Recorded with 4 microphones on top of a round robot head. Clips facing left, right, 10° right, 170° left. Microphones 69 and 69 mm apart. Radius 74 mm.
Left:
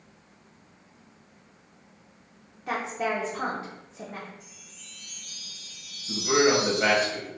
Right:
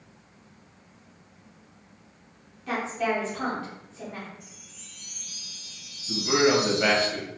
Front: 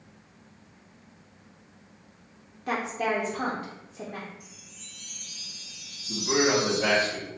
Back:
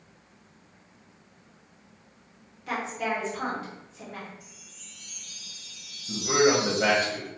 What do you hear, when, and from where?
2.7 s a woman speaking: 30° left, 0.8 m
4.4 s a chime: 35° right, 1.0 m
6.1 s a man speaking: 165° left, 1.0 m